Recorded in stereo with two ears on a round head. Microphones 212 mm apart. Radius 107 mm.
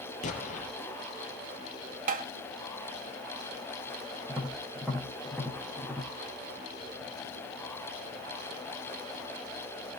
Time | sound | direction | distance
0.2 | an explosion | 30° left (ahead or behind) | 5 m
2.1 | tapping | 35° right (ahead or behind) | 1.6 m
4.3 | tapping | centre (ahead or behind) | 7 m